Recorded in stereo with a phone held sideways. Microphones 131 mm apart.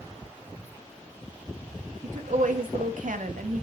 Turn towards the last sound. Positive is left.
turn(degrees=-80)